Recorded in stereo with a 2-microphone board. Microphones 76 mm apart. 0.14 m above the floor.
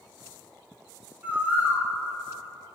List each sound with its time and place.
1.2 s a bird: 20° right (ahead or behind), 1.1 m